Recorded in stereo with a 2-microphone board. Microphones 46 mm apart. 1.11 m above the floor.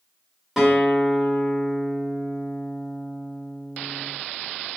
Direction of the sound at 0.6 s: 10° right (ahead or behind).